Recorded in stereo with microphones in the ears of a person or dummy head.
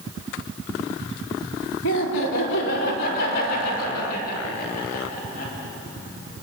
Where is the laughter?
75° left (ahead or behind), 3.5 m; by 5.5 s 45° left (ahead or behind), 8 m.